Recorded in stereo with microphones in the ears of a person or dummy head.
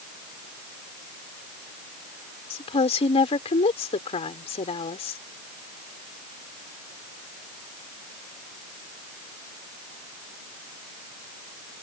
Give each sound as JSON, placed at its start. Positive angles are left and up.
{"t": 2.5, "sound": "a woman speaking", "side_deg": 30}